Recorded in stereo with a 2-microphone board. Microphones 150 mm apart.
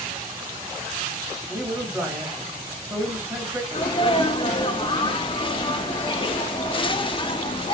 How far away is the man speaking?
About 1.2 m.